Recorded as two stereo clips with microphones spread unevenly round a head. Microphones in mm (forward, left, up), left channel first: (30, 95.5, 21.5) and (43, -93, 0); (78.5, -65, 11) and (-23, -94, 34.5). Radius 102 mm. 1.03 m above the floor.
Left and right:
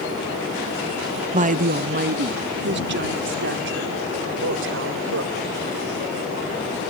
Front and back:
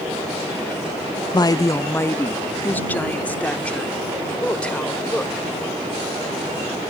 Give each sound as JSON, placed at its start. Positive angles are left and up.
{"t": 1.3, "sound": "a woman speaking", "azimuth_deg": -30}